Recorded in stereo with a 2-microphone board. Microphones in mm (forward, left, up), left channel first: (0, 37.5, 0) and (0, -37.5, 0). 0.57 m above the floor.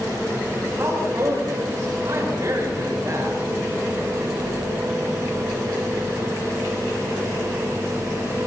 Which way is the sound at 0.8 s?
40° right (ahead or behind).